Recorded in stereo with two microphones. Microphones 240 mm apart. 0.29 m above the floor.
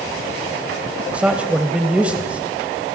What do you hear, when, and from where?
1.1 s a man speaking: 5° right (ahead or behind), 1.2 m